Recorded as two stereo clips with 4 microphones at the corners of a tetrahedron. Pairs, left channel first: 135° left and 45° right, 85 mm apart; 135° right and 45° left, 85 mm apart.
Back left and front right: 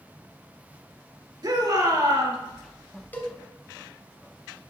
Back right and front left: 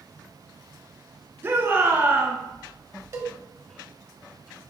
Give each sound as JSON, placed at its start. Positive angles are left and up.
{"t": 1.4, "sound": "a shout", "azimuth_deg": -15, "distance_m": 3.0}
{"t": 3.1, "sound": "a cowbell", "azimuth_deg": 75, "distance_m": 1.3}